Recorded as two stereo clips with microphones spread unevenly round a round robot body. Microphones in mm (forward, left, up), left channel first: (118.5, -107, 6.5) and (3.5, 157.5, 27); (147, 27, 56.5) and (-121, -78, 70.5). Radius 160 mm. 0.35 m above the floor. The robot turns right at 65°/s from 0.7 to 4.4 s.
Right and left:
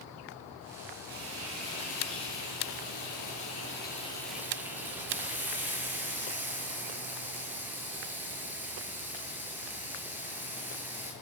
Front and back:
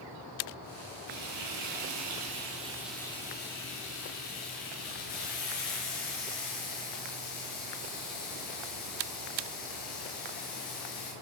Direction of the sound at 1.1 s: 175° left.